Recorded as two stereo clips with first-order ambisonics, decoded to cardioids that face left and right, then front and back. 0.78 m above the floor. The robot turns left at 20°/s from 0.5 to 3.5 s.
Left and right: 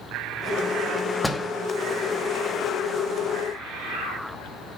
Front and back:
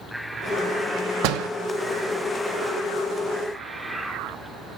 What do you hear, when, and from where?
1.2 s a door slam: 175° left, 0.8 m; by 1.5 s 170° left, 0.8 m